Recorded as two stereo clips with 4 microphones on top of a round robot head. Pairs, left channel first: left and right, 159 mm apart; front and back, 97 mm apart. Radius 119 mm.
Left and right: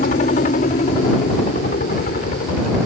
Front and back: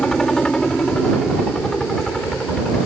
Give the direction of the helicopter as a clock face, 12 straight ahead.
9 o'clock.